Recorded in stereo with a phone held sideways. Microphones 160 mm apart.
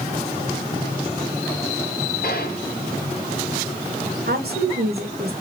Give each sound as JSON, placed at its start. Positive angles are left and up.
{"t": 2.2, "sound": "a gunshot", "side_deg": 75, "distance_m": 2.0}
{"t": 4.3, "sound": "a woman speaking", "side_deg": -80, "distance_m": 2.5}